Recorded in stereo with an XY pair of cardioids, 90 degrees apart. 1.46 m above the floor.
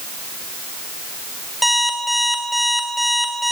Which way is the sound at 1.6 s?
5° left.